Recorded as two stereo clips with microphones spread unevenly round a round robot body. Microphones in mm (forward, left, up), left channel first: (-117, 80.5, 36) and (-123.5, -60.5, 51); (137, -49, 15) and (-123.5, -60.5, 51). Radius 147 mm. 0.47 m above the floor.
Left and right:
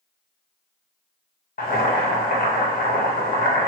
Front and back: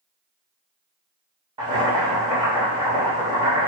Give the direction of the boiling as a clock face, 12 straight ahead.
8 o'clock.